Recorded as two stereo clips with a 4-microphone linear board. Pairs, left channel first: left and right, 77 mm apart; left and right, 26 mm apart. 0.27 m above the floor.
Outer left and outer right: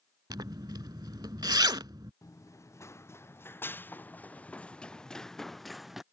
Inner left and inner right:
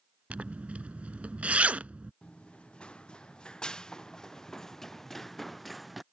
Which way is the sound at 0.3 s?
60° right (ahead or behind).